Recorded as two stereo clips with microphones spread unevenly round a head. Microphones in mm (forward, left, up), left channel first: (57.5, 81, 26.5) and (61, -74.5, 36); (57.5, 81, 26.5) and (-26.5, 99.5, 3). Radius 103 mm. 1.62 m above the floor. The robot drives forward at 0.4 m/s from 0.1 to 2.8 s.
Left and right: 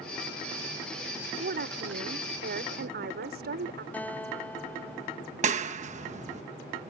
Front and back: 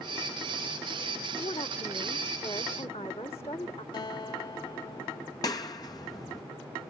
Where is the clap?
55° right.